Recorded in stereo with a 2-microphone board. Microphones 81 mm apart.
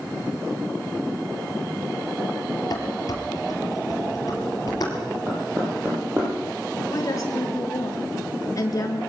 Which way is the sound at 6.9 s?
45° left (ahead or behind).